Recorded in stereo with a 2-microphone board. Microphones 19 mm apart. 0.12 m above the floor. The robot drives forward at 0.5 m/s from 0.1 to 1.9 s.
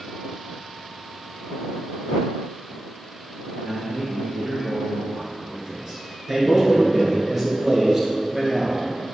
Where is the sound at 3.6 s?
35° right (ahead or behind), 1.9 m.